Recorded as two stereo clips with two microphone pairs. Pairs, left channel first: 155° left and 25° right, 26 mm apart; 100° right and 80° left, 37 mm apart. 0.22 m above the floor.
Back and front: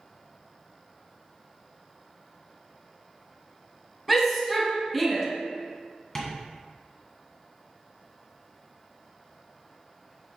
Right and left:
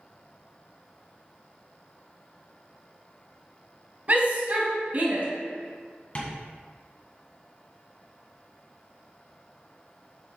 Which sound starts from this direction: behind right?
Tapping, at 6.2 s.